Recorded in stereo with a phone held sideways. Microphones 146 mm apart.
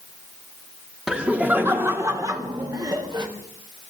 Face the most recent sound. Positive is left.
turn(degrees=-30)  # may be behind; listen again after turning